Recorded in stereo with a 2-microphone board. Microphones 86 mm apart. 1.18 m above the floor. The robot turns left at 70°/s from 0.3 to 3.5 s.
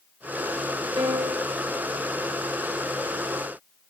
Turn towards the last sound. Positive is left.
turn(degrees=70)